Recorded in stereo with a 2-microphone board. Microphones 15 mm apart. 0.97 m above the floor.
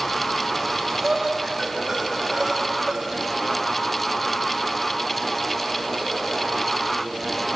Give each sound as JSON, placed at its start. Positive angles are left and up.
{"t": 0.6, "sound": "breathing", "side_deg": -25, "distance_m": 5.0}